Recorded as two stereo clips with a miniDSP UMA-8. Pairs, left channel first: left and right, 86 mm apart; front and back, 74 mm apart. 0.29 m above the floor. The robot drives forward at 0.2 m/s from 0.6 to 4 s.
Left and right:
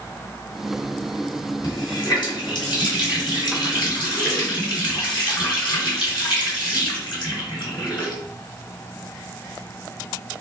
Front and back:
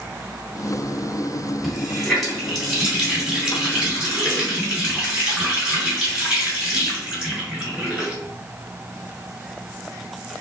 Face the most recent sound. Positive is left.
turn(degrees=105)